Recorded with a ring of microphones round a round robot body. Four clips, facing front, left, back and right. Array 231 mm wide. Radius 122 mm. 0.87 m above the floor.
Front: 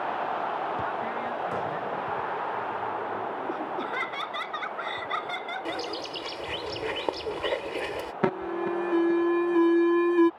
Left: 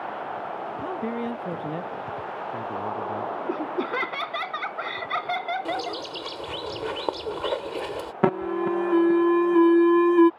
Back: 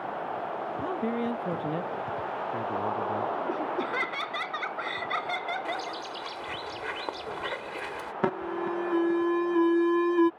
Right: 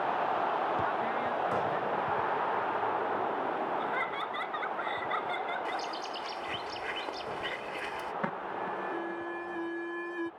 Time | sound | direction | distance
0.8 | a man speaking | 135° left | ?
3.5 | laughter | 100° left | ?
5.7 | a bird | 55° left | ?
8.2 | an alarm | 80° left | ?